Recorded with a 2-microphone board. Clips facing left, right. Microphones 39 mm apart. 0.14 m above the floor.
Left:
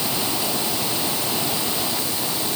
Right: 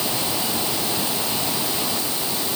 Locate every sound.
Only background noise.